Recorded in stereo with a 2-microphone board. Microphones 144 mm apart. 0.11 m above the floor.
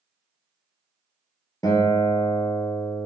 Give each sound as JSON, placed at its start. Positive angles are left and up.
{"t": 1.6, "sound": "a guitar", "side_deg": 25, "distance_m": 1.6}